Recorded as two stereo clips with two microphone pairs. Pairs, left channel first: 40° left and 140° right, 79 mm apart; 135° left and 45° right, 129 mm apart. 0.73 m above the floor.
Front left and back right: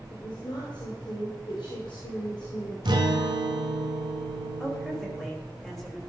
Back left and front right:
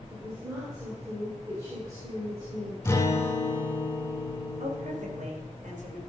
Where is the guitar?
155° right, 1.1 m.